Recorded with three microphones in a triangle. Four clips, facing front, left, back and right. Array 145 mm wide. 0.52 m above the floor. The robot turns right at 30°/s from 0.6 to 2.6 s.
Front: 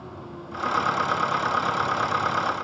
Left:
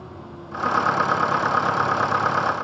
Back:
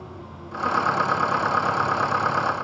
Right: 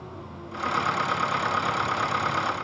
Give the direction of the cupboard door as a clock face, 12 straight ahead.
I don't hear a cupboard door.